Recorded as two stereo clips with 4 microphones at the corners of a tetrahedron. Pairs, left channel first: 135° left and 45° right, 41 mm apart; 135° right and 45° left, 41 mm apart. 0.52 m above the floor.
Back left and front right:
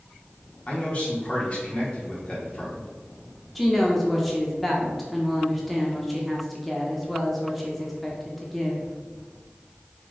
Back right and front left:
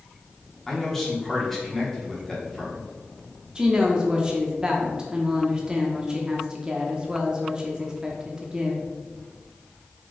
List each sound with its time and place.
0.7 s a man speaking: 145° left, 1.2 m
3.5 s a woman speaking: 50° left, 0.6 m